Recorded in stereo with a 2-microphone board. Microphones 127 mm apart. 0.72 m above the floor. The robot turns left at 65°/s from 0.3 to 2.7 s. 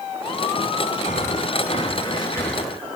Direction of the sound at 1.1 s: 105° left.